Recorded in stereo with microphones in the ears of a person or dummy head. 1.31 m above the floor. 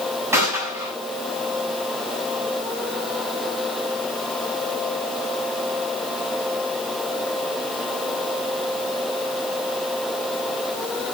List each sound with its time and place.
0.3 s a gunshot: 15° right (ahead or behind), 7 m